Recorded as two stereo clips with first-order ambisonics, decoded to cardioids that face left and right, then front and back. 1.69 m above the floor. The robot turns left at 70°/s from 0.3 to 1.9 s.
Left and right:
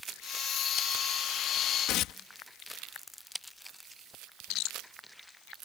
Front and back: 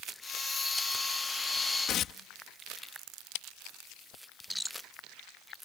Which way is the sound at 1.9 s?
50° left.